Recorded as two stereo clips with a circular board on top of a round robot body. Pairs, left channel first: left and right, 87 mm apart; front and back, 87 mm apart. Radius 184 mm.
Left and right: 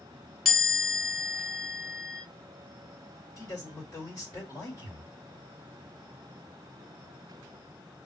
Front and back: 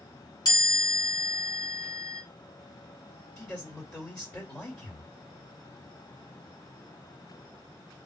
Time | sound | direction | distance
0.5 | a chime | 5° left | 2 m
3.4 | a man speaking | 55° left | 2 m